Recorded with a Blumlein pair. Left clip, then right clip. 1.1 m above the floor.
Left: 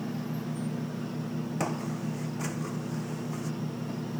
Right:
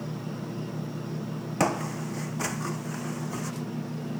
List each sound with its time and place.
1.6 s footsteps: 20° right